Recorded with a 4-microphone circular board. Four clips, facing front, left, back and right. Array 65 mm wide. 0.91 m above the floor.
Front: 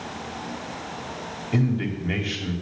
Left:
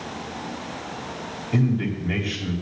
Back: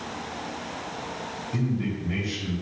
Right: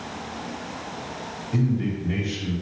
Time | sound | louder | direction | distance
1.5 | a man speaking | left 2 dB, front 4 dB | 30° left | 2.5 m